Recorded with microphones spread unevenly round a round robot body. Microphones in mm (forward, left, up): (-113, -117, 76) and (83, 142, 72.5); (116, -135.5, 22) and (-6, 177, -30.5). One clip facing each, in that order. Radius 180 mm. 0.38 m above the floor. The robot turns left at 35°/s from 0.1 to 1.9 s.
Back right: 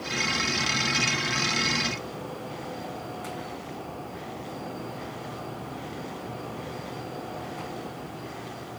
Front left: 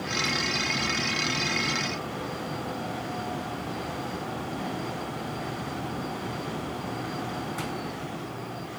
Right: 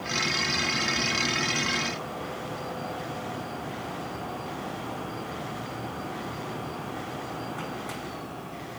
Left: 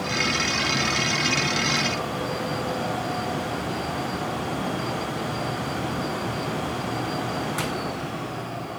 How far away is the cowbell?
I don't hear a cowbell.